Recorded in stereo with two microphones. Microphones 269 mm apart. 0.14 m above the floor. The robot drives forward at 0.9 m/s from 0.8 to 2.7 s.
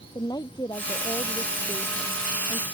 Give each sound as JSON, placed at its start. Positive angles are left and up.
{"t": 0.1, "sound": "a woman speaking", "side_deg": 15}